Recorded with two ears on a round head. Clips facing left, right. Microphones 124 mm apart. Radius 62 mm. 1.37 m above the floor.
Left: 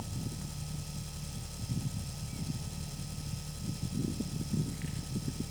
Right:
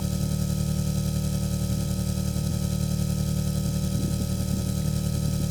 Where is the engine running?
75° right (ahead or behind).